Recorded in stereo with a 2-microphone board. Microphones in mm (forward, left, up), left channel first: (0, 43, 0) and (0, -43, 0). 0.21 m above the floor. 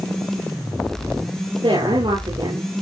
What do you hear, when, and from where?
1.6 s a woman speaking: 75° right (ahead or behind), 4.5 m